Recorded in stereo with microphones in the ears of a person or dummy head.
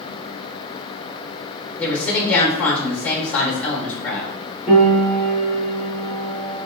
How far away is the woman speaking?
About 1.0 m.